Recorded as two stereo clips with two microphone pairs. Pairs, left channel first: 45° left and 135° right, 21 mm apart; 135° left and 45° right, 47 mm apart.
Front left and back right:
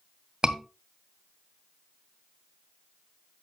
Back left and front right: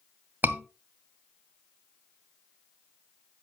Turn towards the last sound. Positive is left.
turn(degrees=-85)